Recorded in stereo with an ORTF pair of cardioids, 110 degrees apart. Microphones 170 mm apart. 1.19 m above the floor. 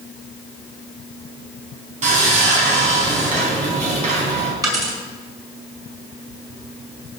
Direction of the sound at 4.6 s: 20° right.